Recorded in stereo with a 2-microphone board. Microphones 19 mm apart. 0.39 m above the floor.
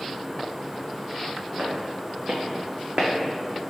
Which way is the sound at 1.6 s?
70° right (ahead or behind).